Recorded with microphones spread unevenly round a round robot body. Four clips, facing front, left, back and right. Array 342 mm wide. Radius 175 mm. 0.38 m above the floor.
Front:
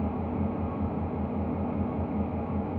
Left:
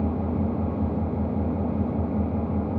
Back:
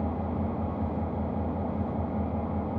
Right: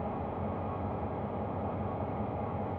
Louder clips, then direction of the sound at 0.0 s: Left 9 dB, even; 85° left.